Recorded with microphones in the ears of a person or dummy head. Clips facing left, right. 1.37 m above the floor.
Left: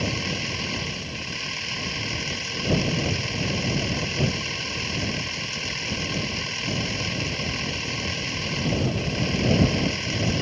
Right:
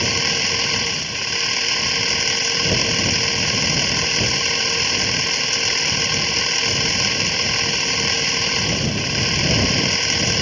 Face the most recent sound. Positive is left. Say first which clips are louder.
# right 3 dB
turn(degrees=-65)  # may be behind; listen again after turning